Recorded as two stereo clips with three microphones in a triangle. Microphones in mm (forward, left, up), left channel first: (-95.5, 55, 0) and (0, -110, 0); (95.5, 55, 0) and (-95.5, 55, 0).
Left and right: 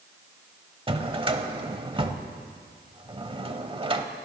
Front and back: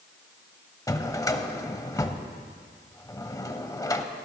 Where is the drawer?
50° right, 0.8 m.